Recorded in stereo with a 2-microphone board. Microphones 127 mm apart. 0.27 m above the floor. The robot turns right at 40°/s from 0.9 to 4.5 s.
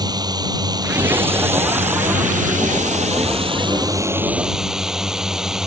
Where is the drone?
150° right; by 5.7 s 5° right.